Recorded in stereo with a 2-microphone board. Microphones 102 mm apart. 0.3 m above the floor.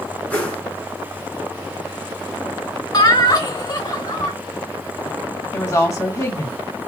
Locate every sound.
0.3 s a whoosh: 15° left (ahead or behind), 2 m
2.9 s laughter: 40° left (ahead or behind), 1.2 m
5.5 s a woman speaking: 30° left (ahead or behind), 1.9 m